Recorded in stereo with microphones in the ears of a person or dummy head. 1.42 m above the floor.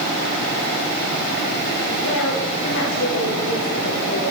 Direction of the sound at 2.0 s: 55° left (ahead or behind).